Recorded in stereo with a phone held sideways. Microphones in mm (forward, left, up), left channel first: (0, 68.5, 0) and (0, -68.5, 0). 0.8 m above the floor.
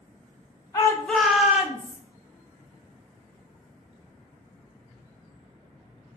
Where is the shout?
25° left (ahead or behind), 0.5 m; by 2.0 s 15° right (ahead or behind), 1.2 m.